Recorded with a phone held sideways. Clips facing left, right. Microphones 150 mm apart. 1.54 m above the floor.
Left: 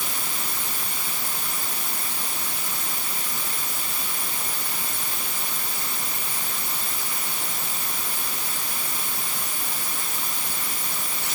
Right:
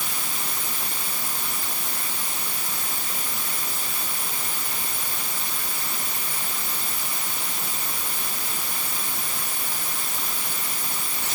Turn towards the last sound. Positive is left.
No sound to turn to.